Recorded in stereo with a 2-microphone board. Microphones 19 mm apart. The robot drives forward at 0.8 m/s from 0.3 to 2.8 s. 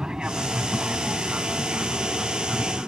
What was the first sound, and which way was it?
An aircraft, 50° right (ahead or behind).